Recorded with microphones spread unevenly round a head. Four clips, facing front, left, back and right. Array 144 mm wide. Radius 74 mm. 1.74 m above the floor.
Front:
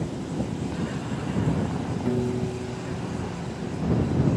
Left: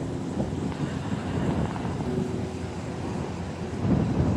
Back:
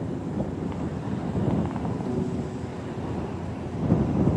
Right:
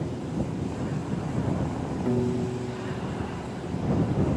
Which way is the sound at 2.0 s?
65° right.